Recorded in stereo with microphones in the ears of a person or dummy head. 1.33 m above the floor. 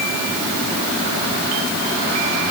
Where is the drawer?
No drawer in this recording.